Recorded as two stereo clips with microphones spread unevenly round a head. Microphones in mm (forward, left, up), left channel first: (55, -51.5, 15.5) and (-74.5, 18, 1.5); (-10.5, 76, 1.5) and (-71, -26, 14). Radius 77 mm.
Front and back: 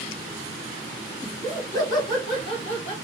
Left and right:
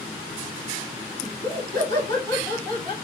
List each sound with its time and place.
1.2 s laughter: 105° right, 2 m; by 2.9 s 75° right, 2.5 m